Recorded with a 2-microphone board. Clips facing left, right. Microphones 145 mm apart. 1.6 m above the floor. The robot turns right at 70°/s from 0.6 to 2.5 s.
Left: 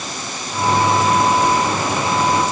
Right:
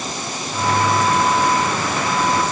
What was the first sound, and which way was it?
Only background noise.